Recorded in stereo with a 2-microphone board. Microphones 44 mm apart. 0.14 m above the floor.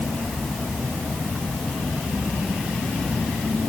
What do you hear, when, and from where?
Only background noise.